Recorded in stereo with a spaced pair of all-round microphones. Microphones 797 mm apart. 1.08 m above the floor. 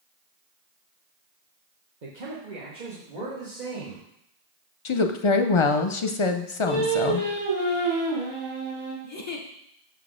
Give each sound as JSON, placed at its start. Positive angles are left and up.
{"t": 2.0, "sound": "a man speaking", "side_deg": -65, "distance_m": 1.2}
{"t": 4.8, "sound": "a woman speaking", "side_deg": 40, "distance_m": 0.6}
{"t": 6.6, "sound": "singing", "side_deg": -80, "distance_m": 3.5}
{"t": 9.0, "sound": "a giggle", "side_deg": 35, "distance_m": 1.1}